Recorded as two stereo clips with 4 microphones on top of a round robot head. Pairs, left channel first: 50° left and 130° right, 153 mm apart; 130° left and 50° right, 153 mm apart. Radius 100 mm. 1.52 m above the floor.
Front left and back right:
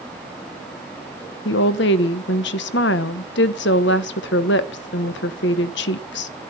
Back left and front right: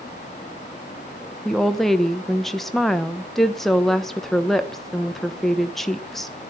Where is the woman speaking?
40° left, 0.9 m.